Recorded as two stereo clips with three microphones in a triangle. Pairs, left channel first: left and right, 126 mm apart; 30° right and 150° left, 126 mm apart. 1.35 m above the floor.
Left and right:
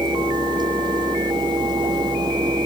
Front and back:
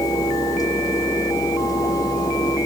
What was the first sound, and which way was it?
Only background noise.